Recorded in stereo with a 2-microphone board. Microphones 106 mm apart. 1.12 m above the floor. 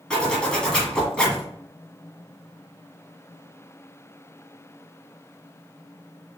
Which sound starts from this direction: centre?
A zipper, at 0.1 s.